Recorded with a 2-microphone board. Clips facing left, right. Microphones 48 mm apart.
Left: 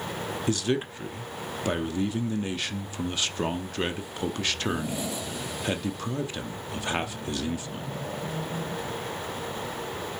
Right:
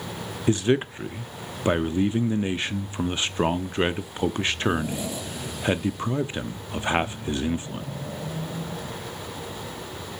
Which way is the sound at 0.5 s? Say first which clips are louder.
Right 6 dB; 30° right (ahead or behind).